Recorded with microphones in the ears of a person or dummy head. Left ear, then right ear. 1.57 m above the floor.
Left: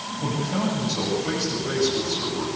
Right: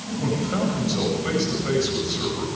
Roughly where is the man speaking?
Right.